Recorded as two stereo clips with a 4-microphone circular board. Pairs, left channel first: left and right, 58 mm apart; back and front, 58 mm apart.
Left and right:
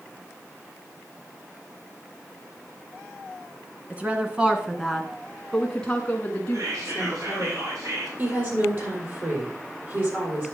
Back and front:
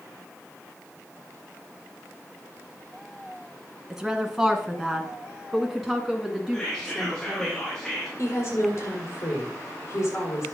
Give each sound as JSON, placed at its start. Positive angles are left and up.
{"t": 3.9, "sound": "a woman speaking", "azimuth_deg": -70, "distance_m": 1.6}
{"t": 6.5, "sound": "whispering", "azimuth_deg": -100, "distance_m": 3.5}
{"t": 8.2, "sound": "a woman speaking", "azimuth_deg": -140, "distance_m": 4.5}